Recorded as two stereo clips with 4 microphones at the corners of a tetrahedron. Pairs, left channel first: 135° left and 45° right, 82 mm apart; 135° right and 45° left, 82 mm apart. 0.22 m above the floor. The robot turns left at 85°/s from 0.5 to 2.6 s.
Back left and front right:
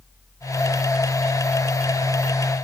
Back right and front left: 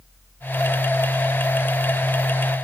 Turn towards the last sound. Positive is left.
No sound to turn to.